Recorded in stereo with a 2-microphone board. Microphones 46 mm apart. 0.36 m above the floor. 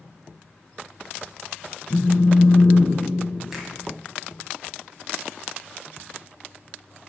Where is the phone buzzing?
35° left (ahead or behind), 0.9 m.